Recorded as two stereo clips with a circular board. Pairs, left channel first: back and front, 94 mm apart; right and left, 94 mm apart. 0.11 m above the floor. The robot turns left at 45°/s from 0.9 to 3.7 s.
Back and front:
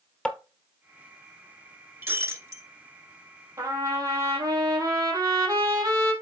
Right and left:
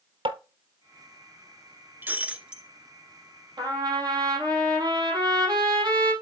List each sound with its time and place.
0.2 s tapping: 100° left, 0.9 m
2.0 s breaking glass: 45° left, 0.9 m; by 2.6 s 15° left, 0.9 m
3.6 s a trumpet: 55° left, 3 m; by 6.1 s 50° left, 3 m